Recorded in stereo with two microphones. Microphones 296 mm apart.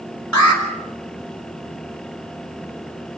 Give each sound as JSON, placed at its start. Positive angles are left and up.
{"t": 0.3, "sound": "an alarm", "side_deg": 65, "distance_m": 4.5}